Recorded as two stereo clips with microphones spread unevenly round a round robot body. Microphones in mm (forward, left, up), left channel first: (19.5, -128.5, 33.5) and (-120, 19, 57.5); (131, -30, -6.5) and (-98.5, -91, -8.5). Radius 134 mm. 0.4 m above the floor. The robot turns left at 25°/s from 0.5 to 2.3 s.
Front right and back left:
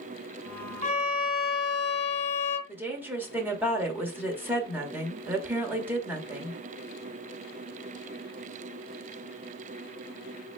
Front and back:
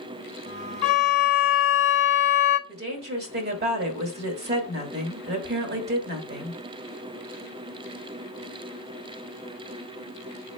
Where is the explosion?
No explosion in this recording.